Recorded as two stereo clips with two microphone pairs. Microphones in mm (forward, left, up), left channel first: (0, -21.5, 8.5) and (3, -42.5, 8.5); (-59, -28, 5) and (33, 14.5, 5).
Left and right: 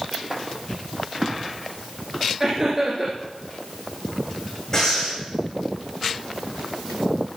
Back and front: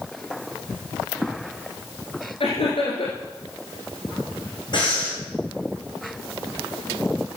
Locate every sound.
2.4 s laughter: 150° right, 2.5 m
4.7 s breathing: 165° left, 6.5 m